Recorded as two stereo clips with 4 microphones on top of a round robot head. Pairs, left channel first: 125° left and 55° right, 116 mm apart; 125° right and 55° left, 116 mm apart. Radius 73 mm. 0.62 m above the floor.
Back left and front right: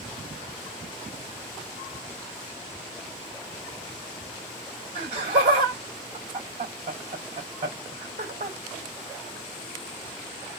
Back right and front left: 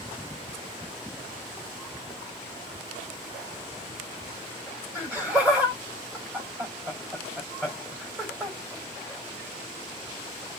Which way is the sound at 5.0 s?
20° right.